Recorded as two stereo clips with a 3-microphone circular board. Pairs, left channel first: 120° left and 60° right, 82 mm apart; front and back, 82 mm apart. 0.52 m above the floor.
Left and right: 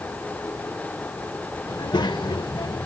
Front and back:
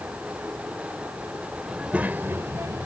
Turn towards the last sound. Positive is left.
turn(degrees=145)